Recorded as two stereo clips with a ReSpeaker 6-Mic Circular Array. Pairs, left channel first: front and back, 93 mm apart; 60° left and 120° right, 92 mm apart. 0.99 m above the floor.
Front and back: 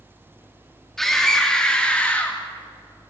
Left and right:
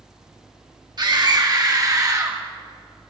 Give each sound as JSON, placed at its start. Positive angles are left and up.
{"t": 1.0, "sound": "a scream", "azimuth_deg": -85, "distance_m": 2.5}